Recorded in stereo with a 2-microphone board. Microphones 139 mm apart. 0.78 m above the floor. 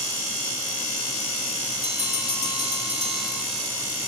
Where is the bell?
30° left (ahead or behind), 2 m.